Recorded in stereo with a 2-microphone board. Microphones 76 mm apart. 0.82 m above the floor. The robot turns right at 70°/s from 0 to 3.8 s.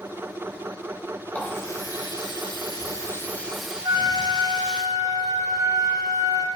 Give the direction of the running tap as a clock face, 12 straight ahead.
11 o'clock.